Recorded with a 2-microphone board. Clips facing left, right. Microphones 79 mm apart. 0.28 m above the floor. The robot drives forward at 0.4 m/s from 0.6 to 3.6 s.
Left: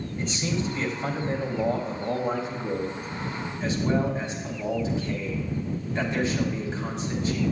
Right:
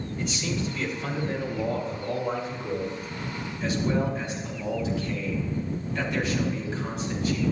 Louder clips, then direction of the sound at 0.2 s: Left 2 dB; 35° left (ahead or behind).